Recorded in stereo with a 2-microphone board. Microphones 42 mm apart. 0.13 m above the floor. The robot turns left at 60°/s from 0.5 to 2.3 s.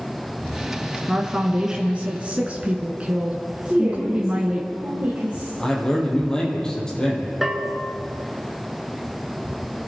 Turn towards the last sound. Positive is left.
turn(degrees=-5)  # may be behind; listen again after turning